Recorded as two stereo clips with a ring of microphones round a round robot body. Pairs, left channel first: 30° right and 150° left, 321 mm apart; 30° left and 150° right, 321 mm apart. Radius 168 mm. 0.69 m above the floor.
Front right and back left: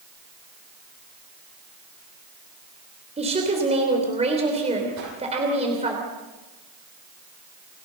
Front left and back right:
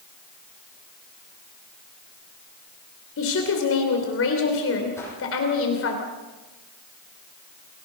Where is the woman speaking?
80° left, 3 m.